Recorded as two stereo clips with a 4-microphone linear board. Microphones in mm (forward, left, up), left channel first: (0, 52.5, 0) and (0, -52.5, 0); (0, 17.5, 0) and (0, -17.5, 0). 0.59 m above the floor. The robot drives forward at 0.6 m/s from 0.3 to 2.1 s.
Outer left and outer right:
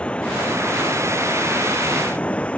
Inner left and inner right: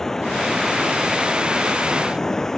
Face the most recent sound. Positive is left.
turn(degrees=10)  # may be behind; listen again after turning